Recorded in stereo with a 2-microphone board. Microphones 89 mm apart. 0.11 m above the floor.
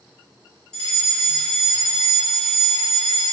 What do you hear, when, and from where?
0.7 s a fire alarm: 10° left (ahead or behind), 2.5 m